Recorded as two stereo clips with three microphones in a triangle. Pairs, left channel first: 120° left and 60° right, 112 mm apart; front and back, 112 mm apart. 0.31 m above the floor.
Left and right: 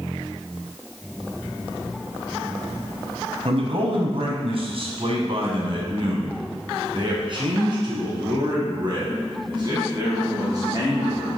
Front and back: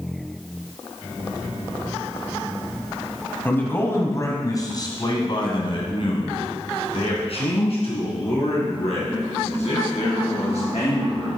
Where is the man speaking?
70° right, 1.7 m; by 11.3 s 5° right, 4.5 m.